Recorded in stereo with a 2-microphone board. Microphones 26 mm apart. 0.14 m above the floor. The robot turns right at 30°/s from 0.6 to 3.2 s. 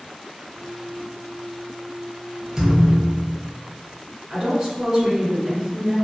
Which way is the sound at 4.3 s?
25° right (ahead or behind).